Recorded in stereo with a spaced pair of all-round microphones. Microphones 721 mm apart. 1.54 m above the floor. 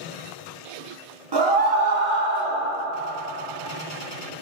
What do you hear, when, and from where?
1.3 s a scream: 35° right (ahead or behind), 1.0 m; by 2.6 s 60° right (ahead or behind), 1.2 m